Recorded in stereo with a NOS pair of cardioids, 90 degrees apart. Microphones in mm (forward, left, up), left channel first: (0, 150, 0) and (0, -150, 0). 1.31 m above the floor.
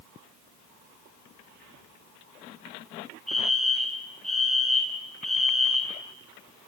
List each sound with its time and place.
3.3 s a fire alarm: straight ahead, 4.5 m